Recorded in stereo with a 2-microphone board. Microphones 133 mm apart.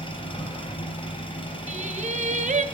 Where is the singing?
70° right (ahead or behind), 1.0 m.